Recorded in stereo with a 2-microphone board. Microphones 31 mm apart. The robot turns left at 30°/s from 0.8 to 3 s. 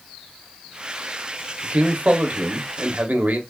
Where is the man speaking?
40° right, 0.9 m; by 3.4 s 80° right, 0.9 m.